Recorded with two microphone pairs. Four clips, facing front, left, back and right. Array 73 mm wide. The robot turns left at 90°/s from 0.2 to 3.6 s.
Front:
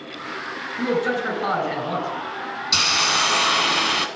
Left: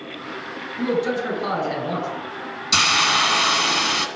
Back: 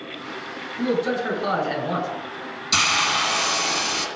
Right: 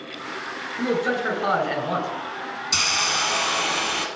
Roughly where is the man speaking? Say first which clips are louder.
Left 1 dB, even; ahead.